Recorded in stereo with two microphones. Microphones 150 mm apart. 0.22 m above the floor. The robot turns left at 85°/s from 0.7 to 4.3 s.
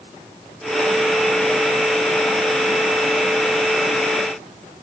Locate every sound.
Only background noise.